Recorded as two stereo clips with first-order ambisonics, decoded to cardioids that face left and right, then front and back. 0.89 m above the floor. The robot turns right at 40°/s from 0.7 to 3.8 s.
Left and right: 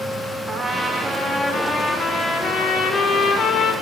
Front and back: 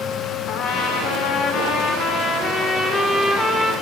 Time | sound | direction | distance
0.5 | a trumpet | 20° right | 0.6 m